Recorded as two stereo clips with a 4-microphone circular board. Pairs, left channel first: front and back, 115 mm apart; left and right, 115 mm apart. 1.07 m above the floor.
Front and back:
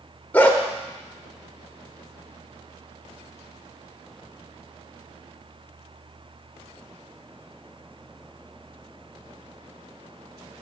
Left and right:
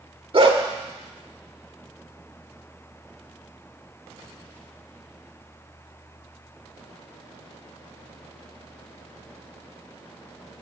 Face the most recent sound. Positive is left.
turn(degrees=-75)